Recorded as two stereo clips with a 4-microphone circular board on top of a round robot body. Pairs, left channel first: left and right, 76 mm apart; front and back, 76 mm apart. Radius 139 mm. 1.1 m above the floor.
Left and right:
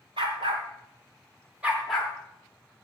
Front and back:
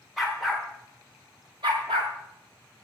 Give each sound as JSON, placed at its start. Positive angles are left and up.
{"t": 0.2, "sound": "a dog barking", "azimuth_deg": -90, "distance_m": 1.2}